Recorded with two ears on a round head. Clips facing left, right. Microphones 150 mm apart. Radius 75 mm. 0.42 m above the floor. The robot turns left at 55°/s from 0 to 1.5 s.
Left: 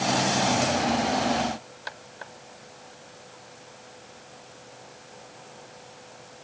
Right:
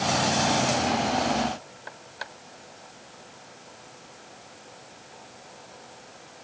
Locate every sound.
Only background noise.